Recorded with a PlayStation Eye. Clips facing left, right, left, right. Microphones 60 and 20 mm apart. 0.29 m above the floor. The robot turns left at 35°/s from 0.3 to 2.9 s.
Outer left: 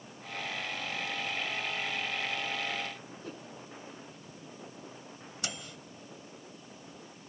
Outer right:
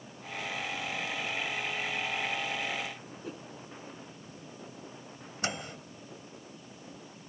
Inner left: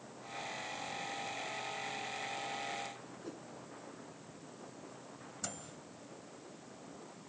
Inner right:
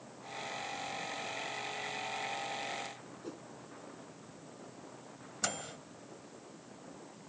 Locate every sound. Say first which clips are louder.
3.2 s a whoosh: outer right 2 dB, inner right 2 dB; 5° right (ahead or behind)
5.4 s a microwave: outer right 7 dB, inner right 9 dB; 40° right (ahead or behind)